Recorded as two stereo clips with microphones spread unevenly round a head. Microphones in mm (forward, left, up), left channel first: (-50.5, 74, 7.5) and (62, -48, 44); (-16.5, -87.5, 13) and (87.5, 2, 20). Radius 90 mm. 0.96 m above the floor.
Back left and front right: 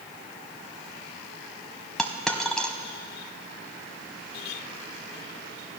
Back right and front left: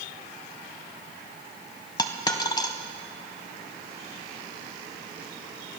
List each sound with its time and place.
2.0 s a dropped coin: 115° right, 0.8 m